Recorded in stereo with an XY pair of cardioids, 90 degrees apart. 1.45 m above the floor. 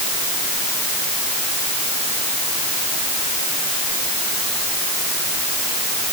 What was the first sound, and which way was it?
Only background noise.